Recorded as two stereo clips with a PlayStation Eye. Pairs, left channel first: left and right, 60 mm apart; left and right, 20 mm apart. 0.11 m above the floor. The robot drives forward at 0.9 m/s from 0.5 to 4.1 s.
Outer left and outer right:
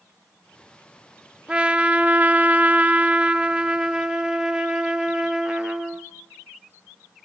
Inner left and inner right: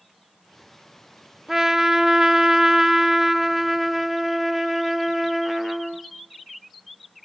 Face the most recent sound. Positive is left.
turn(degrees=-10)  # may be behind; listen again after turning